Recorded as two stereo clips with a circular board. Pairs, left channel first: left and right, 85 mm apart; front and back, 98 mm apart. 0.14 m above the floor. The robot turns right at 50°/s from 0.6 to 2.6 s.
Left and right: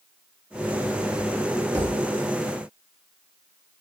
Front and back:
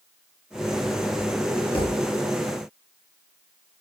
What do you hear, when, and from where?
1.7 s a thud: 35° right, 2.5 m; by 2.1 s 15° right, 2.5 m